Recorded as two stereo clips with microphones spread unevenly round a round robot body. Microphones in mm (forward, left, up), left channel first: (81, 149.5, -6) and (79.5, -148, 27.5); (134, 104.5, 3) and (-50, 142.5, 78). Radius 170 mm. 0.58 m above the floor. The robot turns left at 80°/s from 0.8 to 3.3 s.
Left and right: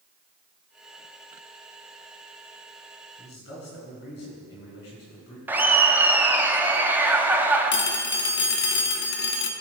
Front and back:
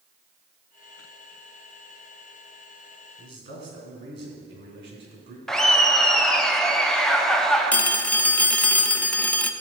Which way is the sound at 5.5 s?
Straight ahead.